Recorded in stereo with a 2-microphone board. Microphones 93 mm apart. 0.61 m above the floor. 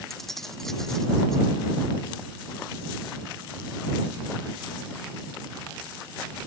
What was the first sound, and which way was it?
Keys jangling, 5° left (ahead or behind).